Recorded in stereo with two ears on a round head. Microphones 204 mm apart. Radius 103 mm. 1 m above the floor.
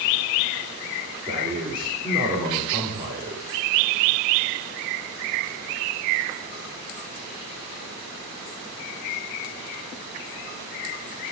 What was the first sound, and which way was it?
A man speaking, 25° right (ahead or behind).